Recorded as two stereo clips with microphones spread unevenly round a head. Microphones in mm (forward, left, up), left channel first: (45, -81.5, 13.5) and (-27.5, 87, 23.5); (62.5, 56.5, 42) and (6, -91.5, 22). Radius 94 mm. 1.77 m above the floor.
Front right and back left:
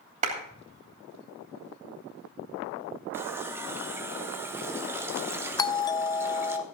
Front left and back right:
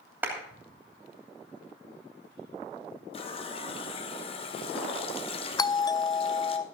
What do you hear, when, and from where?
0.2 s a clap: 165° left, 2.5 m
3.1 s a running tap: 45° left, 1.1 m
5.6 s a doorbell: straight ahead, 0.5 m